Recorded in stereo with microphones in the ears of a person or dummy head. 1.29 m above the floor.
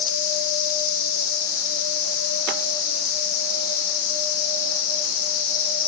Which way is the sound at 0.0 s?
55° left (ahead or behind).